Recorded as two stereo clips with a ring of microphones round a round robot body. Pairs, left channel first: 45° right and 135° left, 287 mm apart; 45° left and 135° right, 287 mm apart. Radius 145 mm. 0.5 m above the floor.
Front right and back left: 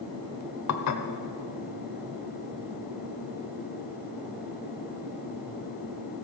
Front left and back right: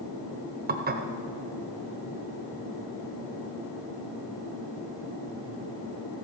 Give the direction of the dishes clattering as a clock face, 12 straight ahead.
3 o'clock.